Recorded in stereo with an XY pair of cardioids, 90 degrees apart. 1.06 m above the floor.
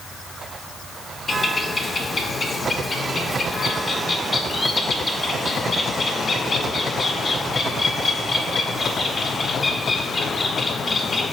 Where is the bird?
30° left, 0.6 m.